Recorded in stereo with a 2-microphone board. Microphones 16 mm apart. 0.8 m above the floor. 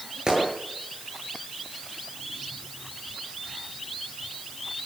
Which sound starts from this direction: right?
A gunshot, at 0.3 s.